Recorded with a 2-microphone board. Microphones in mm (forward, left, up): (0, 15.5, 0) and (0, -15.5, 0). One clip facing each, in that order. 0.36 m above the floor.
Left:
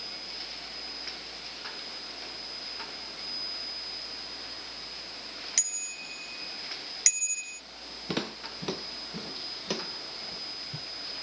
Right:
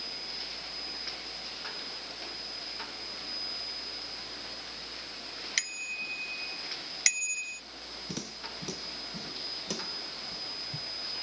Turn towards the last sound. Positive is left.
turn(degrees=15)  # may be behind; listen again after turning